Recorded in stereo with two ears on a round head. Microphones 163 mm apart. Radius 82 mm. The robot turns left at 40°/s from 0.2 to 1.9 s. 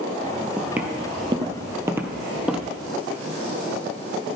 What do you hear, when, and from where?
0.6 s footsteps: centre (ahead or behind), 1.4 m; by 2.7 s 5° right (ahead or behind), 1.9 m